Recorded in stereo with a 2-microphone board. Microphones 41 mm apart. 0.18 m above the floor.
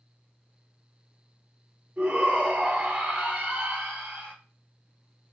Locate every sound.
2.0 s a shout: 30° right (ahead or behind), 3 m